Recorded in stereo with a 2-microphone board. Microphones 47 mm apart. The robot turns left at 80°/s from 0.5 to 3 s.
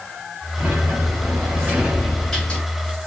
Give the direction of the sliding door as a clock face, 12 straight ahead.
2 o'clock.